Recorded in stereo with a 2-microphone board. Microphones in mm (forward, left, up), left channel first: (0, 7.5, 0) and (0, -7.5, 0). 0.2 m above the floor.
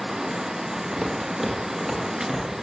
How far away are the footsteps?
About 7 m.